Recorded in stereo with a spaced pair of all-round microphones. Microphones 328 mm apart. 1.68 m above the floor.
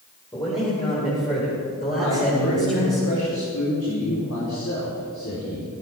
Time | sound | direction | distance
0.3 | a man speaking | 15° left (ahead or behind) | 6 m
2.0 | a man speaking | 65° left (ahead or behind) | 5 m